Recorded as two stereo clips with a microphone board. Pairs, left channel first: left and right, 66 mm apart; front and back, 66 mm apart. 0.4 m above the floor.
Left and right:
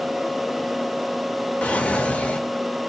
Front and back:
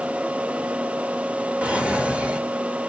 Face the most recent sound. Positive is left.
turn(degrees=130)